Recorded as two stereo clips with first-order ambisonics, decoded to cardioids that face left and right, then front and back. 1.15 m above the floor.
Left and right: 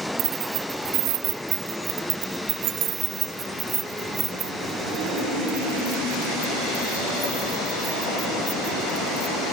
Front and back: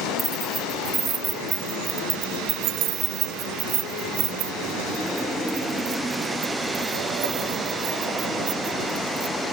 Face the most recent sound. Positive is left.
turn(degrees=-175)